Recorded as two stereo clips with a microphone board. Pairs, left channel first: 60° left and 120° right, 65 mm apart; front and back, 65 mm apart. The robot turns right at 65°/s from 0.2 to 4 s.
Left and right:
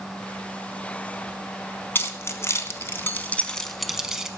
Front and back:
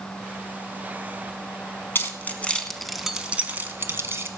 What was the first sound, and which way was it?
Keys jangling, 30° left.